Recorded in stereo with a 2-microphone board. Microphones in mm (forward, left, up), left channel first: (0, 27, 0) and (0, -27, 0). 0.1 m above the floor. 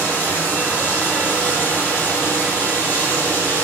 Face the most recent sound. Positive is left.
turn(degrees=40)  # may be behind; listen again after turning